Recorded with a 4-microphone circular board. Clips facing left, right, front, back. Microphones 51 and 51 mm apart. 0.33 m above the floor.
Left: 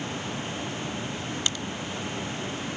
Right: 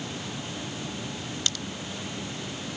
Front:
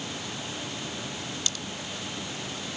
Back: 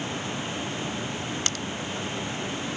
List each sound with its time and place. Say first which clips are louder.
1.5 s a crack: even, back 4 dB; 155° left